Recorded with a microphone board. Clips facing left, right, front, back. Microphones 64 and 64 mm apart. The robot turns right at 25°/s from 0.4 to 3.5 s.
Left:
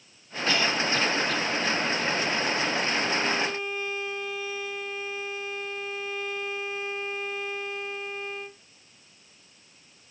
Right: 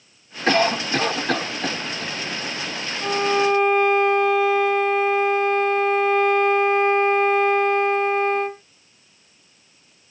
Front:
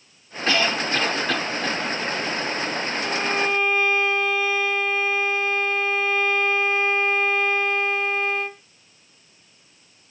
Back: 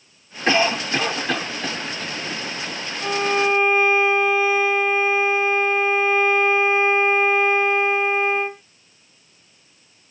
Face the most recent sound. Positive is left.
turn(degrees=-110)